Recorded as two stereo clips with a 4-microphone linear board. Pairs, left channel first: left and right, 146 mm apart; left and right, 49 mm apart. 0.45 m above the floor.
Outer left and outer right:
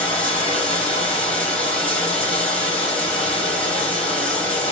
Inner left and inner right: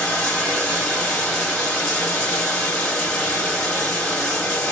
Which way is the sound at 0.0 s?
10° left (ahead or behind).